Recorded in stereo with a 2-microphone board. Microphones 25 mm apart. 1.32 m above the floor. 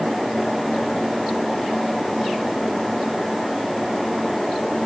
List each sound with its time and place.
Only background noise.